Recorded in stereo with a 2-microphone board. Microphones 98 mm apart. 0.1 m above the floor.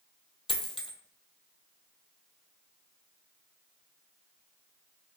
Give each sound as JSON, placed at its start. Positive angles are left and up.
{"t": 0.5, "sound": "a dropped coin", "side_deg": 65, "distance_m": 0.6}